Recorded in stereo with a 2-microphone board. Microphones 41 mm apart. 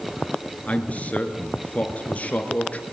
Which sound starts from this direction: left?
A man speaking, at 0.7 s.